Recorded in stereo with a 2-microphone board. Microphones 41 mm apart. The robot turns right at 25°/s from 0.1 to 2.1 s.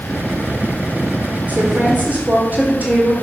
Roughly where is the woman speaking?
Right.